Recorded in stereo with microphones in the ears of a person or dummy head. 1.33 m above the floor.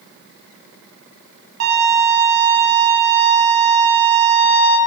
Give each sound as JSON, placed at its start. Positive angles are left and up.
{"t": 1.6, "sound": "a violin", "side_deg": -55, "distance_m": 1.2}